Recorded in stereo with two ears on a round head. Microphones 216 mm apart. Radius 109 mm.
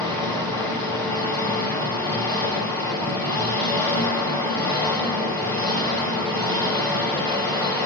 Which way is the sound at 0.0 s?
10° left (ahead or behind).